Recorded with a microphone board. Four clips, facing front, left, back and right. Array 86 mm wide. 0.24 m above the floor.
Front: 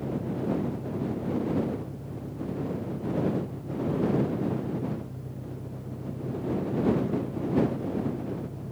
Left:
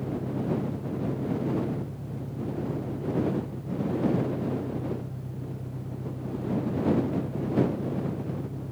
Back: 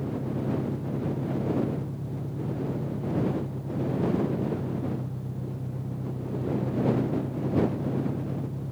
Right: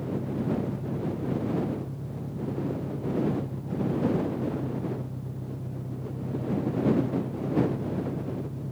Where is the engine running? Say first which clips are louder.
Even, even; 160° right.